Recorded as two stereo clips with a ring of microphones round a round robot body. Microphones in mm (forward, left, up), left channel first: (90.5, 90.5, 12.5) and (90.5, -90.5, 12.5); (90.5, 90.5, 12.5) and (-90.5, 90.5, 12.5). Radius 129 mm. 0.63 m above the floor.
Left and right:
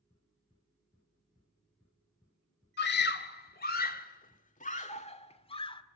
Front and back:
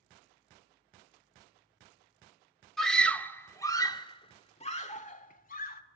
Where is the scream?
90° left, 2 m; by 5.8 s 30° left, 2.5 m.